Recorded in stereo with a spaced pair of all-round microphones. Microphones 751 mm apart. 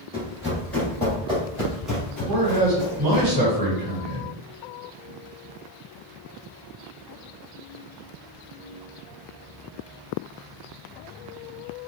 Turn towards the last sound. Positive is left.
turn(degrees=-30)  # may be behind; listen again after turning